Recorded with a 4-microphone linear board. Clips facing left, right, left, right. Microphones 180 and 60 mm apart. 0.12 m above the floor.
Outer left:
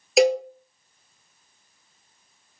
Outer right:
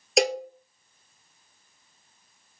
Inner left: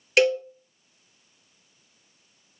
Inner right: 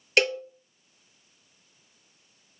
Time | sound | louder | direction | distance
0.2 | a cowbell | outer left 6 dB, inner left 4 dB | centre (ahead or behind) | 0.6 m